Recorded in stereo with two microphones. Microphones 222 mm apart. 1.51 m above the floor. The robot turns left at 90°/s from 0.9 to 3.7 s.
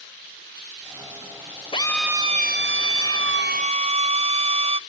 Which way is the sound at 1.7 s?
25° left.